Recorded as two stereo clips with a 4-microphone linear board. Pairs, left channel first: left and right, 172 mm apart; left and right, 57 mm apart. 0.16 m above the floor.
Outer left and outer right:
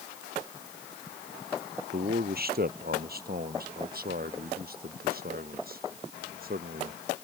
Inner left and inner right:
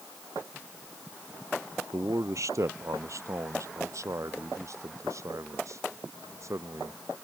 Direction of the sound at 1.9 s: 65° right (ahead or behind).